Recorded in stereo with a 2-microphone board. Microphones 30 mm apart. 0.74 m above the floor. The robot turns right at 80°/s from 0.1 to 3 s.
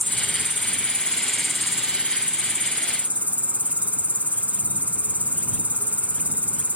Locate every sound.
0.0 s an insect: 70° left; by 6.8 s 60° right